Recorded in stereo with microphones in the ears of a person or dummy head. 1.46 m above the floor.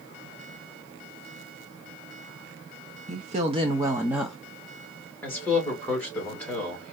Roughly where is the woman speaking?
Right.